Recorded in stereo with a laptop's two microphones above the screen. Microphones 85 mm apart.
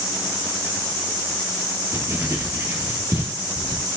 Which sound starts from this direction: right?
Writing, at 1.9 s.